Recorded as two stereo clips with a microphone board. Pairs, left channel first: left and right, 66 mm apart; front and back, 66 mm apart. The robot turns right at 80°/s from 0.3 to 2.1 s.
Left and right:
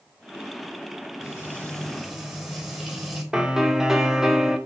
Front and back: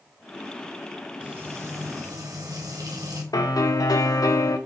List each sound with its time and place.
1.2 s frying: 120° left, 3.5 m; by 3.2 s 170° right, 3.5 m
3.3 s a piano: 10° right, 1.0 m